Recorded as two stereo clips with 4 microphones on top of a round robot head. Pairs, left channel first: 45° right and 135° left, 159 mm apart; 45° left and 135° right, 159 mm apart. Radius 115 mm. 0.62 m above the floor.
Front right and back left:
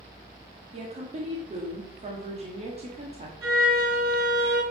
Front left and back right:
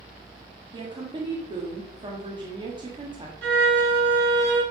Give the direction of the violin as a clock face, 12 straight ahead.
5 o'clock.